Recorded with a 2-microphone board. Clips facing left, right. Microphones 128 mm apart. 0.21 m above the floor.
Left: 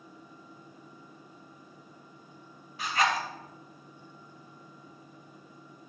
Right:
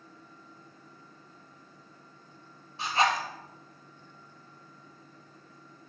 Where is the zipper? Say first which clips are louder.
Right 1 dB; 30° right (ahead or behind), 0.8 m.